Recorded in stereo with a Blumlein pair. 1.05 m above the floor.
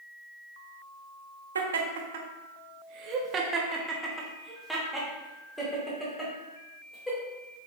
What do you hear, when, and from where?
1.6 s laughter: 70° right, 1.2 m; by 7.7 s 15° left, 3.5 m